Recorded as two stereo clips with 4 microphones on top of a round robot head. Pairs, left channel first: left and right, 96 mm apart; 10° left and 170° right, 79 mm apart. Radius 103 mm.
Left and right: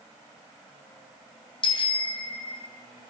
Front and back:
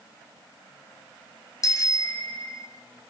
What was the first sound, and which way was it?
A bicycle bell, 55° left.